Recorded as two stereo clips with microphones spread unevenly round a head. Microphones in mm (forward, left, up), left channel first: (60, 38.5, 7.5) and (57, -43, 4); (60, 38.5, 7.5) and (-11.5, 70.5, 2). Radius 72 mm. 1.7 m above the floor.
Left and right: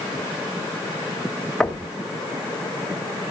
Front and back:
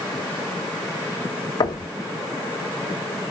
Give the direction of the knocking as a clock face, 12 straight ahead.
12 o'clock.